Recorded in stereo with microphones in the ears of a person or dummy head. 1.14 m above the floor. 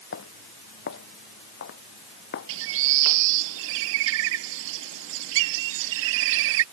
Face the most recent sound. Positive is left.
turn(degrees=-80)